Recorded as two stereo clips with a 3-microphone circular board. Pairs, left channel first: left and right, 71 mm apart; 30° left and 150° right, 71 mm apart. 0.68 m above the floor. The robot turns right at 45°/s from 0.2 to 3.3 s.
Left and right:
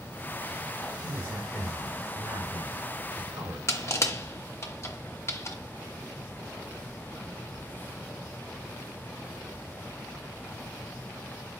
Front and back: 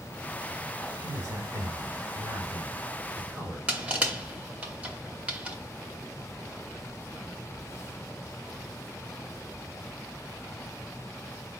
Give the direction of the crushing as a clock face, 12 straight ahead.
7 o'clock.